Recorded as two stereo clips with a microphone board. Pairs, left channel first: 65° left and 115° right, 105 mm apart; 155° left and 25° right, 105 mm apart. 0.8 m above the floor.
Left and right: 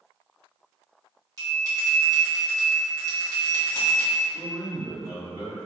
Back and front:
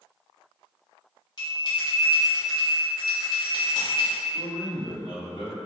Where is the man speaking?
165° right, 1.5 m.